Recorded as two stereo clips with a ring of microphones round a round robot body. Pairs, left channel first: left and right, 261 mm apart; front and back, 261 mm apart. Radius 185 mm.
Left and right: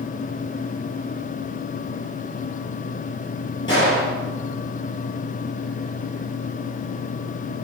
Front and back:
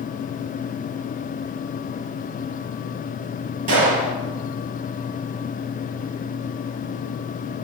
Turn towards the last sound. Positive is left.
turn(degrees=170)